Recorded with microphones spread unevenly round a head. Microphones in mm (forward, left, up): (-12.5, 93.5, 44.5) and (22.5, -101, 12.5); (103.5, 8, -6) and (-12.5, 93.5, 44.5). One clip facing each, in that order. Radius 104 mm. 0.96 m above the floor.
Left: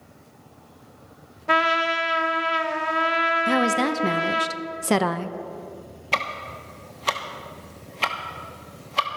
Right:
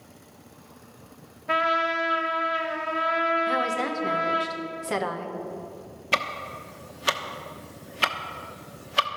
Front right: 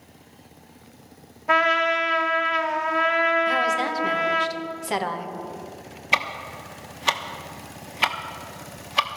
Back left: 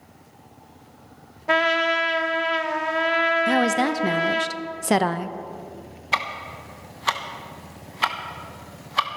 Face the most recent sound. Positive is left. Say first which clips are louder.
# even, front right 1 dB
turn(degrees=-20)